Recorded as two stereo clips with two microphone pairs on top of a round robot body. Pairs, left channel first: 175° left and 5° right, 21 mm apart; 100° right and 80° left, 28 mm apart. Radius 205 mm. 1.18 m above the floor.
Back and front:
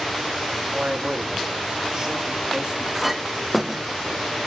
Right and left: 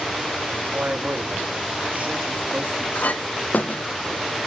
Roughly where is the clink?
Right.